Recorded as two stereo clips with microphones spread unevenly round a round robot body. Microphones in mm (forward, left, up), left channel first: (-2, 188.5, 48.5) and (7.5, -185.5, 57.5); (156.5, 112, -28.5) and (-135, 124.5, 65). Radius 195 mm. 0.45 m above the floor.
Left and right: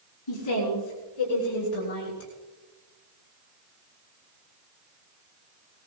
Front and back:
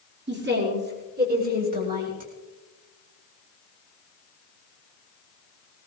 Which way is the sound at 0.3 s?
120° left.